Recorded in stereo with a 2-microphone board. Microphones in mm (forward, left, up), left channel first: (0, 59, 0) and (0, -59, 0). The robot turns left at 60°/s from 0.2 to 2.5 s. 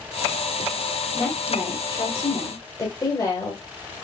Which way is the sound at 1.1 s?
145° left.